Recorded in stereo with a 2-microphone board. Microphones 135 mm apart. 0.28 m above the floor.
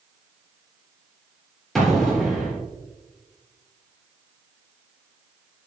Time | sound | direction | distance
1.8 | an explosion | centre (ahead or behind) | 3 m